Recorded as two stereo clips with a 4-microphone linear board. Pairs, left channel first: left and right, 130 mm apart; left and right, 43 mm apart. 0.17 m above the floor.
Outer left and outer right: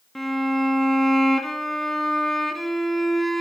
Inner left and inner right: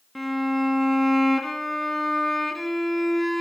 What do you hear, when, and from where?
0.1 s a violin: centre (ahead or behind), 1.3 m